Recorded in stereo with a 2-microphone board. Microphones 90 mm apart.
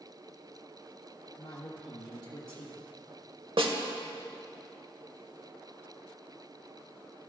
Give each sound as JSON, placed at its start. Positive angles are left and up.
{"t": 1.4, "sound": "a woman speaking", "side_deg": 50, "distance_m": 1.3}
{"t": 3.6, "sound": "a snare drum", "side_deg": -80, "distance_m": 0.9}